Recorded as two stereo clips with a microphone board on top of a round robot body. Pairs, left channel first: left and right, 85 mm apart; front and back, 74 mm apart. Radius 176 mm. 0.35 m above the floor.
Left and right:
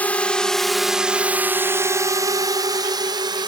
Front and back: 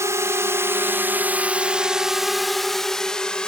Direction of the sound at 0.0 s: 155° left.